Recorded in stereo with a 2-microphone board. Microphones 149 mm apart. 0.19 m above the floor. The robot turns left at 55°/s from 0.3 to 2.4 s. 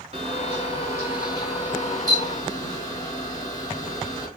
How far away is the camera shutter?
About 1.8 m.